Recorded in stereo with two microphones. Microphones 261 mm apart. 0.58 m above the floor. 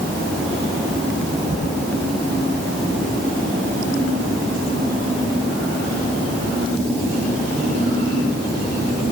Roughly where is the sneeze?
I don't hear a sneeze.